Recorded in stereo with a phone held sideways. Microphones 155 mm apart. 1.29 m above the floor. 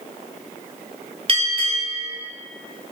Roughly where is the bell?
Right.